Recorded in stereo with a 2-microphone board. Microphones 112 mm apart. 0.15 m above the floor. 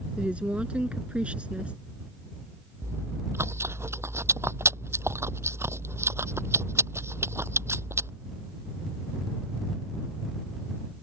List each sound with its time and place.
0.2 s a woman speaking: 10° right (ahead or behind)
2.8 s chewing: 25° right (ahead or behind)